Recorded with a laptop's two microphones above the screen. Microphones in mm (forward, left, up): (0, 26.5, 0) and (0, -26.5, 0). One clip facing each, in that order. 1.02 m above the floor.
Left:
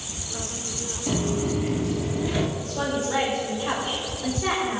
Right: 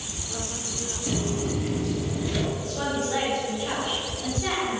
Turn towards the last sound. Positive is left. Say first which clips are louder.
# left 1 dB
turn(degrees=15)  # may be behind; listen again after turning